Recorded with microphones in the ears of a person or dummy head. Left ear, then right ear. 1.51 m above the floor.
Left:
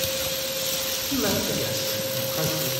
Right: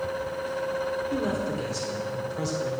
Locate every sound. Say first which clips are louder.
1.1 s a man speaking: left 3 dB; 40° left (ahead or behind), 1.2 m